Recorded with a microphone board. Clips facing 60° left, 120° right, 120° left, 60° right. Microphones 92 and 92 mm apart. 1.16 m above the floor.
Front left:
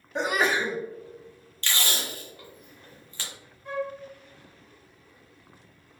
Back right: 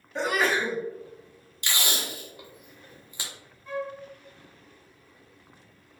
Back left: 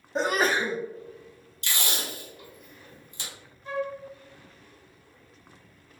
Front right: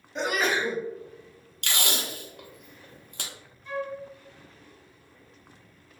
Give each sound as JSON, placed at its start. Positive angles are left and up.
{"t": 0.1, "sound": "a sneeze", "azimuth_deg": 120, "distance_m": 0.5}
{"t": 1.6, "sound": "tape being pulled", "azimuth_deg": -45, "distance_m": 0.6}
{"t": 3.6, "sound": "a flute", "azimuth_deg": 70, "distance_m": 0.7}